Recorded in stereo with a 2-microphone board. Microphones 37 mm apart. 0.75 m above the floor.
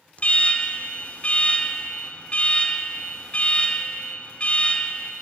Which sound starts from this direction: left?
An alarm, at 0.2 s.